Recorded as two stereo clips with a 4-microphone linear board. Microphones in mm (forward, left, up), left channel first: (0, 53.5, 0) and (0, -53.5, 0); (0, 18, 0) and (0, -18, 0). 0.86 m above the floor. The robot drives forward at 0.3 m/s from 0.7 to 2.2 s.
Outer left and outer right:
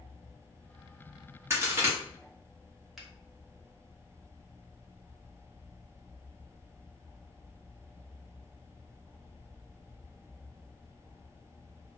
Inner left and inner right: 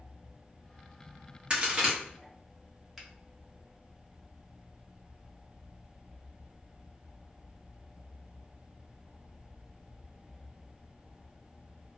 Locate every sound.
1.5 s a crack: 25° right (ahead or behind), 1.2 m
3.0 s a finger snap: centre (ahead or behind), 0.9 m